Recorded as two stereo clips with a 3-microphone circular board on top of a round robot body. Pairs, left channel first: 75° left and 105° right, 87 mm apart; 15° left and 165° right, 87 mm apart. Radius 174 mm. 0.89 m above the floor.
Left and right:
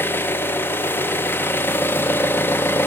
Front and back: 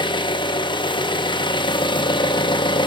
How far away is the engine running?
About 0.7 m.